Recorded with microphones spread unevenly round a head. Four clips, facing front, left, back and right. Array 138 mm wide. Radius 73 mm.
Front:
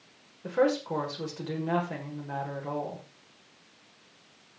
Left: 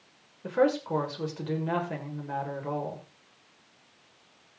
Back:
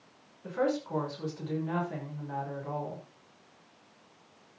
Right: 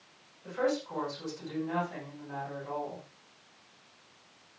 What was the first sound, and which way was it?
A woman speaking, 55° left.